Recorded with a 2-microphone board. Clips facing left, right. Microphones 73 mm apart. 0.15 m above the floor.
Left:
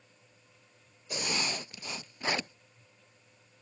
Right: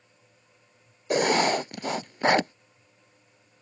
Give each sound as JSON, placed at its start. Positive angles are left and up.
{"t": 1.1, "sound": "writing", "side_deg": -70}